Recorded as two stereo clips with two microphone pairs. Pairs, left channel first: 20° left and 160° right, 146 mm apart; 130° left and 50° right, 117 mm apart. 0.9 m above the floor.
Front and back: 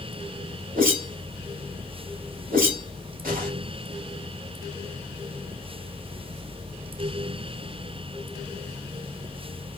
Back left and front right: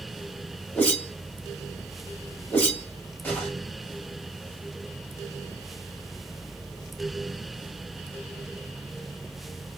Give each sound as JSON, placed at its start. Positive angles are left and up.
{"t": 0.8, "sound": "a whoosh", "azimuth_deg": -160, "distance_m": 2.0}